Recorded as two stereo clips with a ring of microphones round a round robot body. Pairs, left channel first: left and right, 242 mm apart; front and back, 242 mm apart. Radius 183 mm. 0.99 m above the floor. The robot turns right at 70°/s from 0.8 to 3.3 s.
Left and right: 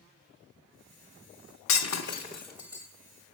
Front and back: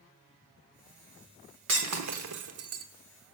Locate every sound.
1.7 s breaking glass: 125° left, 1.0 m; by 2.9 s 155° right, 1.0 m